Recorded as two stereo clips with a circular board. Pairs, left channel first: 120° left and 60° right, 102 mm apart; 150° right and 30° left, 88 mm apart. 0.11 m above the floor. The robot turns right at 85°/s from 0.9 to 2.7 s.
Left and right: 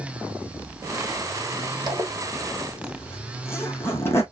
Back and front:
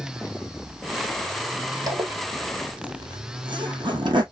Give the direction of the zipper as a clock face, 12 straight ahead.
1 o'clock.